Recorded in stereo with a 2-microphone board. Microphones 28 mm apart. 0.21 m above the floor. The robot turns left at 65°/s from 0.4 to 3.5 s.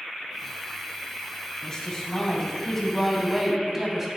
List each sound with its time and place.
1.6 s a woman speaking: 25° left (ahead or behind), 1.3 m; by 4.1 s 15° right (ahead or behind), 1.3 m